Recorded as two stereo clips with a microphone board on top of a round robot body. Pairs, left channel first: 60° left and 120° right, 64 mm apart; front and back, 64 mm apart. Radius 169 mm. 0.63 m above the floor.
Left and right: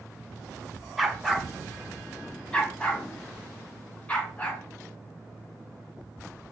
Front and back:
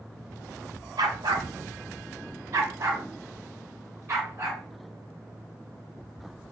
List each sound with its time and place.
1.0 s a dog barking: 155° left, 0.9 m; by 4.6 s 130° left, 3 m